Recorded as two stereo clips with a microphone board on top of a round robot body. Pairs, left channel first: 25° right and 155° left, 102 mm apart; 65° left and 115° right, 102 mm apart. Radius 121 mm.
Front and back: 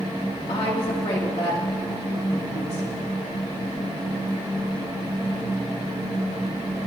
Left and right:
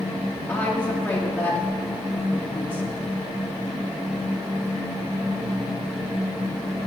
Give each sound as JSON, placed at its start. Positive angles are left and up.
{"t": 0.5, "sound": "a woman speaking", "azimuth_deg": -5, "distance_m": 2.5}